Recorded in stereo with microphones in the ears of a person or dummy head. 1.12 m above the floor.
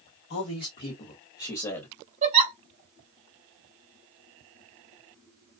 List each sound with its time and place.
0.3 s a man speaking: 60° left (ahead or behind), 1.3 m; by 1.9 s 15° left (ahead or behind), 1.2 m
2.2 s a giggle: 35° right (ahead or behind), 0.9 m